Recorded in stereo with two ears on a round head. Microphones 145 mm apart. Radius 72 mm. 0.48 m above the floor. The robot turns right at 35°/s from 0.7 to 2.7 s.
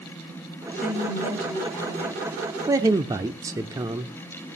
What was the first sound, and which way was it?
A woman speaking, 125° left.